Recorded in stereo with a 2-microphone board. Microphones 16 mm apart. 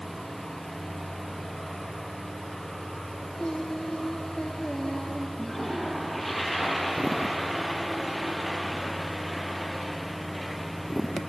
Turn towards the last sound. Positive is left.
turn(degrees=10)  # may be behind; listen again after turning